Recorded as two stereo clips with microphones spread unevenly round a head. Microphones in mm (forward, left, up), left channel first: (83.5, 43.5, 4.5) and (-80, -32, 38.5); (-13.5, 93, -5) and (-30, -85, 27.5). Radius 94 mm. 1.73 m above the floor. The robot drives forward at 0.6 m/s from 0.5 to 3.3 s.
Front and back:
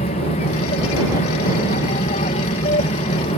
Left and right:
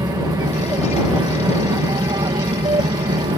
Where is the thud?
I don't hear a thud.